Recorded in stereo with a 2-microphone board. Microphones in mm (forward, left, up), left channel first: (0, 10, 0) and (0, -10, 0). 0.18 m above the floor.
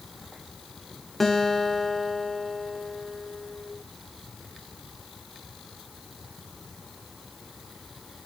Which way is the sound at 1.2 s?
15° left (ahead or behind).